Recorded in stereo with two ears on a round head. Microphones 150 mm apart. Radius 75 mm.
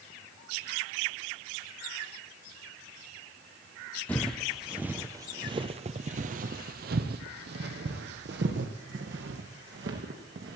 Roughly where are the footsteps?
Centre.